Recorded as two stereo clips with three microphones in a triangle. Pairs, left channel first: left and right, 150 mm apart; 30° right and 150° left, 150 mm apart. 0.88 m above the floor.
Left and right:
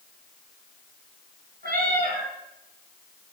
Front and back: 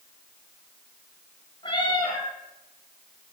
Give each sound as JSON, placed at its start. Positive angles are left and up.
{"t": 1.6, "sound": "a cat meowing", "azimuth_deg": -90, "distance_m": 3.0}